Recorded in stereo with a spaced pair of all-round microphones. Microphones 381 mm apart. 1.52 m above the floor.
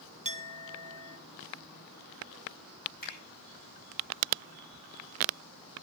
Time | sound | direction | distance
0.2 | a clink | 20° right (ahead or behind) | 1.0 m
3.0 | a finger snap | 60° left (ahead or behind) | 5.5 m